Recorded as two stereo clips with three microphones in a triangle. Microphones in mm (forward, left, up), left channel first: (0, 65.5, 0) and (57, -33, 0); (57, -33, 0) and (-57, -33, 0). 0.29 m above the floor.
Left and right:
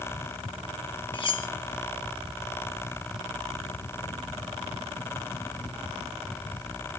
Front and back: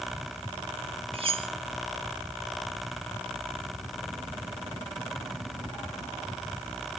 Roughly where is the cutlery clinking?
Behind left.